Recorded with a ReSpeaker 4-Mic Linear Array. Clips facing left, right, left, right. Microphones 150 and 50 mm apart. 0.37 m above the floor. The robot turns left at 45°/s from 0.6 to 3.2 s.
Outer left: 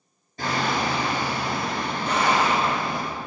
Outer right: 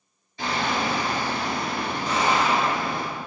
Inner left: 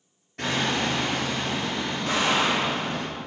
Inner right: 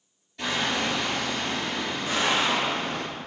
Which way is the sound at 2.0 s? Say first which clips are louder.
Outer left 1 dB, inner left 1 dB; 85° left.